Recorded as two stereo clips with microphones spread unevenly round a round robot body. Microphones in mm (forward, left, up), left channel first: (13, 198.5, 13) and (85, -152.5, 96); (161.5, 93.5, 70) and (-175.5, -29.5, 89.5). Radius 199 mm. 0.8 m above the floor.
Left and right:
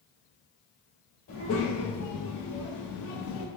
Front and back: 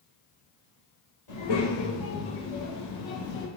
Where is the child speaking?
50° left, 1.9 m; by 3.5 s 85° left, 0.7 m.